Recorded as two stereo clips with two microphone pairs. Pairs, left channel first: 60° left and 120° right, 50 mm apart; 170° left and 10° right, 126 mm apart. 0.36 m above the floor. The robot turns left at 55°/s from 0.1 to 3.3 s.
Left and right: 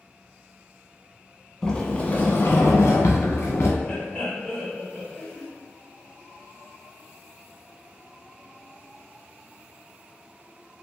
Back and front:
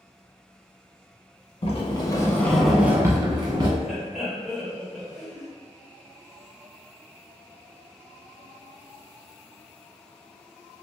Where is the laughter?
85° left, 0.9 m.